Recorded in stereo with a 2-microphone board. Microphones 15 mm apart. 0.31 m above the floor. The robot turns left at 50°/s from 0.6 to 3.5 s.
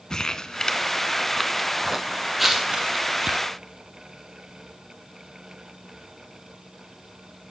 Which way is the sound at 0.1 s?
45° left (ahead or behind).